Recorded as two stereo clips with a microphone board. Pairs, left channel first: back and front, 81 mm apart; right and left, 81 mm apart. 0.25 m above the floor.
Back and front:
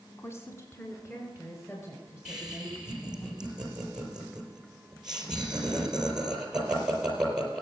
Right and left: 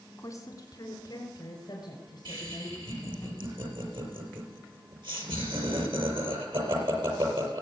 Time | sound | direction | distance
0.2 | a woman speaking | 130° right | 1.5 m
2.2 | laughter | 80° left | 5.5 m